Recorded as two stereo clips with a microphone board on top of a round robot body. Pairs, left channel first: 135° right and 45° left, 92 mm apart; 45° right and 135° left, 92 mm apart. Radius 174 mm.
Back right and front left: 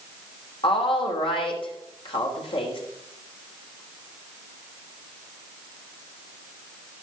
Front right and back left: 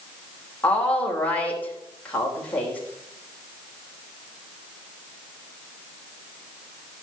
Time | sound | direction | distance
0.6 | a woman speaking | 120° right | 3.5 m